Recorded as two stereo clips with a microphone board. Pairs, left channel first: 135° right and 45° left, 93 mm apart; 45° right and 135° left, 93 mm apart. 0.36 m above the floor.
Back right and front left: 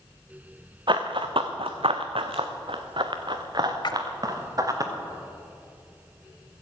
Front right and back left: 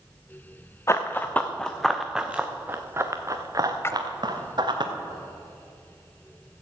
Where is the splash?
105° right, 0.7 m.